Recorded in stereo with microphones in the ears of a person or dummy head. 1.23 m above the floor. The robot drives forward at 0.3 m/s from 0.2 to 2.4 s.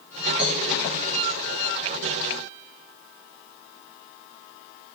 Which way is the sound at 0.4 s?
5° right (ahead or behind).